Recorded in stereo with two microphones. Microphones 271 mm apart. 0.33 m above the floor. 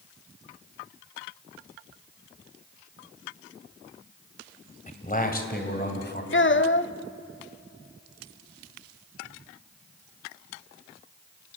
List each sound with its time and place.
4.9 s a man speaking: 25° left (ahead or behind), 1.9 m; by 6.2 s 35° left (ahead or behind), 3 m
6.3 s a child speaking: 45° left (ahead or behind), 0.6 m